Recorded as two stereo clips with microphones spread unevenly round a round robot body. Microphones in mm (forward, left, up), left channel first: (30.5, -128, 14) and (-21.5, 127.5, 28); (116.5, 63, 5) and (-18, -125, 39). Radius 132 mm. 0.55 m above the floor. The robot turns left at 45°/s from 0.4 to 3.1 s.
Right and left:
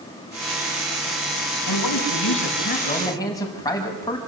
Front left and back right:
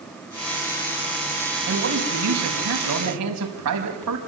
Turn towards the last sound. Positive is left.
turn(degrees=-155)